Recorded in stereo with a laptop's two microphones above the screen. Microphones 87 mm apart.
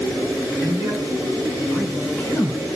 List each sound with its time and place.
0.6 s a man speaking: 35° right (ahead or behind), 2 m; by 2.6 s 35° left (ahead or behind), 1.0 m